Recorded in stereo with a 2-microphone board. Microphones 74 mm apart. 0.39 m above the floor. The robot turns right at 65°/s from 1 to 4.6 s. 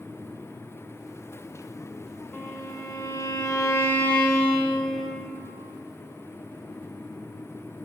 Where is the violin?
35° left, 0.7 m; by 5.3 s straight behind, 0.7 m.